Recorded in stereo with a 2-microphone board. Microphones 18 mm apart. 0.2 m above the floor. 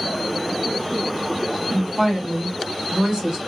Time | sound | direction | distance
1.7 | a woman speaking | 30° right (ahead or behind) | 1.6 m